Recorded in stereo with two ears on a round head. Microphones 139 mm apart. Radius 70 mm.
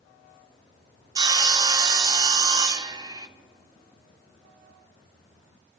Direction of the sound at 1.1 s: 25° right (ahead or behind).